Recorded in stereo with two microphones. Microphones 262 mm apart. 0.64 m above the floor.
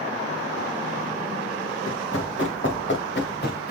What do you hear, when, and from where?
1.9 s running footsteps: 55° left (ahead or behind), 4 m; by 3.7 s 35° left (ahead or behind), 3.5 m